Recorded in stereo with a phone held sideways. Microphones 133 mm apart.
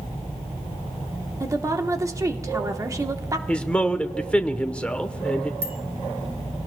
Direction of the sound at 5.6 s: 20° right (ahead or behind).